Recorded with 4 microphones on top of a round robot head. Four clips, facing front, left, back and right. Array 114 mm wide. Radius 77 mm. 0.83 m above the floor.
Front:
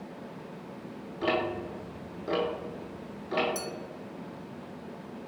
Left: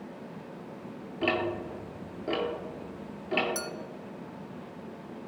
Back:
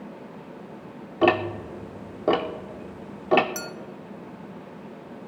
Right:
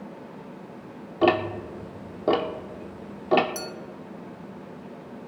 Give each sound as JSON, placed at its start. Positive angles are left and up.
{"t": 1.2, "sound": "ticking", "azimuth_deg": -145, "distance_m": 0.8}
{"t": 3.5, "sound": "a clink", "azimuth_deg": 140, "distance_m": 0.6}